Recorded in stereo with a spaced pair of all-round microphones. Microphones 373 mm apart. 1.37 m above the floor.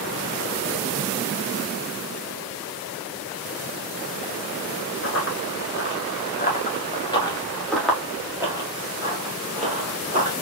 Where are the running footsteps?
35° left (ahead or behind), 1.8 m; by 10.3 s 20° right (ahead or behind), 2.5 m.